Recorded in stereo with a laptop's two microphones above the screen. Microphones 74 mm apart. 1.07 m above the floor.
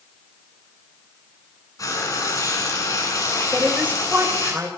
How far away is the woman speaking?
About 5 m.